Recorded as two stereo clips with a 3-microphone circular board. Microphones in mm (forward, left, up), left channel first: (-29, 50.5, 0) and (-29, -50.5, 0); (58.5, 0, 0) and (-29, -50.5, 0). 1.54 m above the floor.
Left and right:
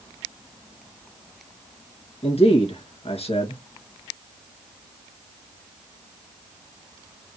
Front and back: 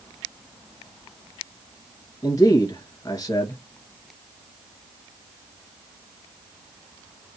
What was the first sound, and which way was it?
A man speaking, 85° left.